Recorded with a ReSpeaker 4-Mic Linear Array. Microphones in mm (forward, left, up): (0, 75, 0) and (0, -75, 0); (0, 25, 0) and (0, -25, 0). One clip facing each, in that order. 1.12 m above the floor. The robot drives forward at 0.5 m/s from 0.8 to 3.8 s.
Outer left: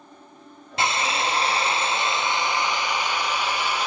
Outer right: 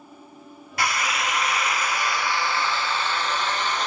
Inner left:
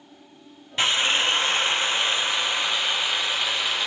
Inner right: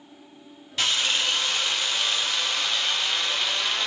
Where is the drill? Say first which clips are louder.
Outer left 2 dB, inner left 3 dB; 25° left (ahead or behind), 0.6 m; by 3.9 s 10° left (ahead or behind), 1.3 m.